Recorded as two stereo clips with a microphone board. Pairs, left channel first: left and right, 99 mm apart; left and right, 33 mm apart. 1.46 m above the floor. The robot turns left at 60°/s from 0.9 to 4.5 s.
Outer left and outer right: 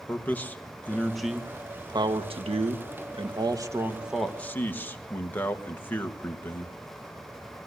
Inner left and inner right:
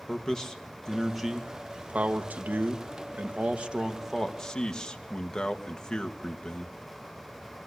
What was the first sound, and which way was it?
A man speaking, 15° left.